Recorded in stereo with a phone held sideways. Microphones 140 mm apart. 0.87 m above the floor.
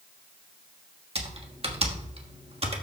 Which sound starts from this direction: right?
Typing on a keyboard, at 1.1 s.